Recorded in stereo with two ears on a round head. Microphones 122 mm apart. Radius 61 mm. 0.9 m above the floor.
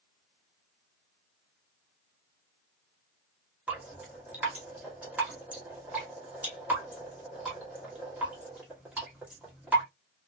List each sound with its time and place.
3.7 s dripping: 10° right (ahead or behind), 1.1 m